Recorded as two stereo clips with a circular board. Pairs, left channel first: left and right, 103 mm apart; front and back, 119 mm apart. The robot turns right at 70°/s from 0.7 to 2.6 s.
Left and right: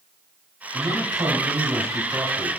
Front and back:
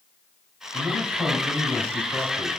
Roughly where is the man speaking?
Behind right.